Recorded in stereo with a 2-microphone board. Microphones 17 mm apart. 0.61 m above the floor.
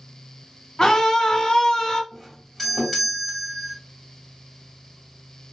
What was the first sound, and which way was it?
A scream, 50° left (ahead or behind).